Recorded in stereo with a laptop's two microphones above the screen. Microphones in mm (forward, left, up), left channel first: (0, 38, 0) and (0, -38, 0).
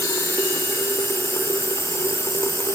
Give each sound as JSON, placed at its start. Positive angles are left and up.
{"t": 0.0, "sound": "running water", "side_deg": 35}